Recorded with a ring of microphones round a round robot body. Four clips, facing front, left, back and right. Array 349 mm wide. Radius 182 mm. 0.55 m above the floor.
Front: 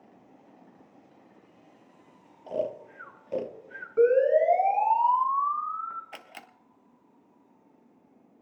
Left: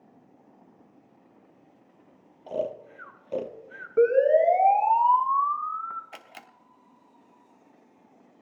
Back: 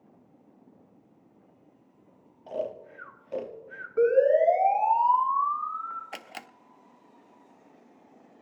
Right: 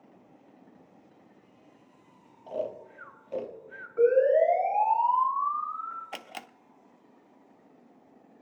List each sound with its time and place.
2.5 s snoring: 50° left, 1.3 m
4.0 s a siren: 85° left, 5 m; by 6.0 s 80° left, 4 m
6.1 s a camera shutter: 130° right, 0.6 m